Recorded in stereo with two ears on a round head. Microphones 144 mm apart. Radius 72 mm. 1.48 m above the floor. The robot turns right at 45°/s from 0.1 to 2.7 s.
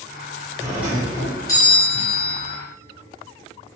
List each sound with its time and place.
0.6 s a doorbell: 20° right, 1.0 m; by 2.5 s 65° left, 1.0 m